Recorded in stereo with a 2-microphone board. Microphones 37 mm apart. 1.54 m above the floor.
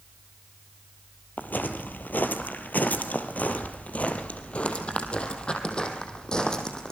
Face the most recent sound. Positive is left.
turn(degrees=20)  # may be behind; listen again after turning